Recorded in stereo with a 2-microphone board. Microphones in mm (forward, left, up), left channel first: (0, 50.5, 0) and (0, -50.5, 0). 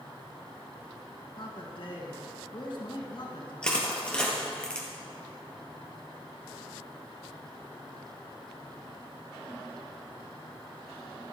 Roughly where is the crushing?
Centre.